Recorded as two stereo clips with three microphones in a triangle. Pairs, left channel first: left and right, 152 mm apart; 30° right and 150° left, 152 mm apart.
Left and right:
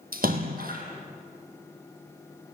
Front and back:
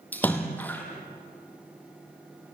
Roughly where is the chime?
No chime in this recording.